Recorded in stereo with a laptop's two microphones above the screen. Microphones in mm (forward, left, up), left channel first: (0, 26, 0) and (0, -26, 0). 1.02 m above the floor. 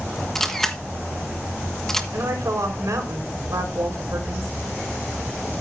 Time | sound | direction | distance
0.3 | a camera shutter | 5° left (ahead or behind) | 1.2 m
2.1 | a woman speaking | 80° right | 4.5 m